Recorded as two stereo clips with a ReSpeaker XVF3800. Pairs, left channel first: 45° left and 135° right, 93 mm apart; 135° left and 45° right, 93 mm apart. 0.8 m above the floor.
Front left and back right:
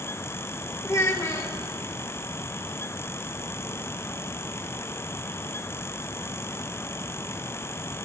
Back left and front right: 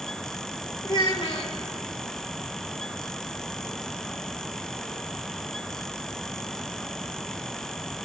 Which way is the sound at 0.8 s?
100° left.